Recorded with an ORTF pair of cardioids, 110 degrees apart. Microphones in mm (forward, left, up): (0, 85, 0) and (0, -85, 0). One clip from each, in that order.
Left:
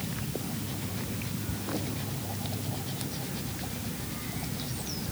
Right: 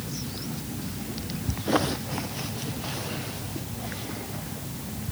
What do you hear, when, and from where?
Only background noise.